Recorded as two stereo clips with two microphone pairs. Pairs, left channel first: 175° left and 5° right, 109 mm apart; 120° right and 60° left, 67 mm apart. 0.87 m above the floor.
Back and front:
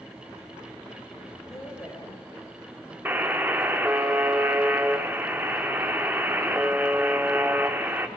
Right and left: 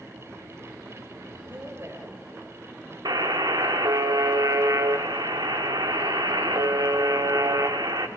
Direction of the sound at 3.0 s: 70° left.